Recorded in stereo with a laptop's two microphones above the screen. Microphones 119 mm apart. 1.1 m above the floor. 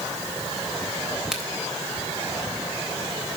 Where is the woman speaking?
I don't hear a woman speaking.